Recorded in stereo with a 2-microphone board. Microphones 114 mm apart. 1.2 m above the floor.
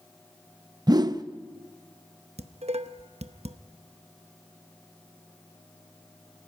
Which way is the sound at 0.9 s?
35° right (ahead or behind).